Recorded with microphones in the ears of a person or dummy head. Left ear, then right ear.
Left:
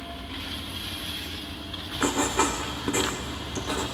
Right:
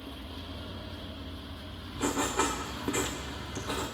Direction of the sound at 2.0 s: 5° left (ahead or behind).